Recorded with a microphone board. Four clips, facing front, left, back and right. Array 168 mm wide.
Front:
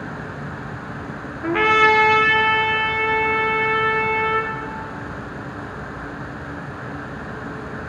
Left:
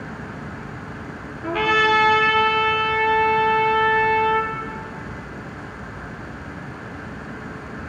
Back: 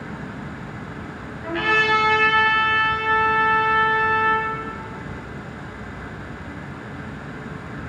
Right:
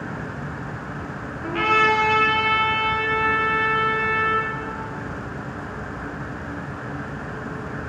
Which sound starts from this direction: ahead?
A trumpet, at 1.4 s.